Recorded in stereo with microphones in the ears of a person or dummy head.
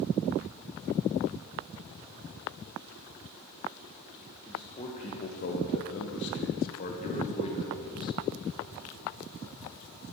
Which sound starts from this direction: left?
A man speaking, at 4.5 s.